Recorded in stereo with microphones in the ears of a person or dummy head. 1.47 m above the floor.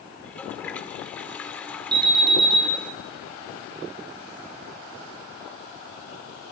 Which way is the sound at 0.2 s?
5° left (ahead or behind).